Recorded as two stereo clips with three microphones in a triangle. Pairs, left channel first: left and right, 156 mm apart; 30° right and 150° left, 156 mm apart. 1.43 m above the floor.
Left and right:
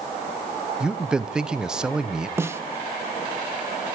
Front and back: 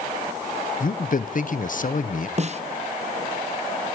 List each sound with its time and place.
0.8 s a man speaking: 5° right, 0.9 m
2.4 s a snare drum: 165° right, 1.0 m